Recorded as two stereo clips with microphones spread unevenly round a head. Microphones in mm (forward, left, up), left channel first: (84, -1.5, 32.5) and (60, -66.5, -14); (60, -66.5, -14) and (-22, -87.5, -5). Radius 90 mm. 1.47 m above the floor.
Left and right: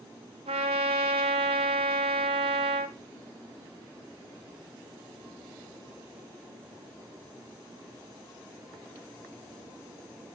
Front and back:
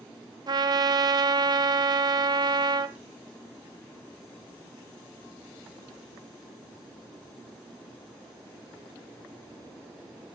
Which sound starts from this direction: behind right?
A trumpet, at 0.5 s.